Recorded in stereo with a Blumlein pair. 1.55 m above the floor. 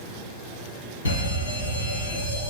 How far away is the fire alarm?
About 3 m.